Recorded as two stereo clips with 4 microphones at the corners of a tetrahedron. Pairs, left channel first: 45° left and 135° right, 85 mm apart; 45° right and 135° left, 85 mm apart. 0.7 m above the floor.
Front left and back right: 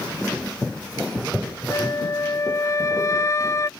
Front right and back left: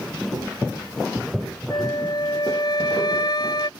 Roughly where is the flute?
Ahead.